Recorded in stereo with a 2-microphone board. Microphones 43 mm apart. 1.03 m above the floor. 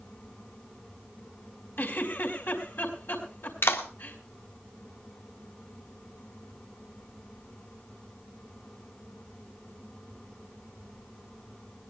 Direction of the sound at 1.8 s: 60° left (ahead or behind).